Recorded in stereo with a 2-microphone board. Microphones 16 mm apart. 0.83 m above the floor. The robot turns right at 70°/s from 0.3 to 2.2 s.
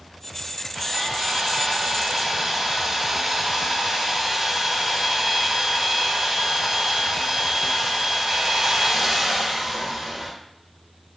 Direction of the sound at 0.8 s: 150° right.